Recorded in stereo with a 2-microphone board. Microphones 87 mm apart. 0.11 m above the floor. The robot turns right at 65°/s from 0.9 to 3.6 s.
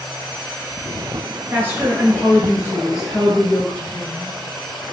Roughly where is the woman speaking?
Right.